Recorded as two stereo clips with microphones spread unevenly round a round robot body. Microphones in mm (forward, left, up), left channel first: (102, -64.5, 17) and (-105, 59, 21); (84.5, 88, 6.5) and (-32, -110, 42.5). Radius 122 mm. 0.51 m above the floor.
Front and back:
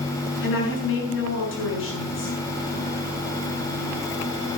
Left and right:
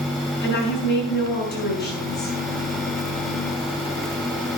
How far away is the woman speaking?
About 6.5 m.